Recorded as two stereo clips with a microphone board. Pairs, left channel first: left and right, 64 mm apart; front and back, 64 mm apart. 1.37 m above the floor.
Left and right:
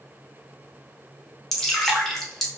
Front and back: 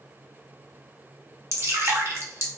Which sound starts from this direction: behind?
Dripping, at 1.5 s.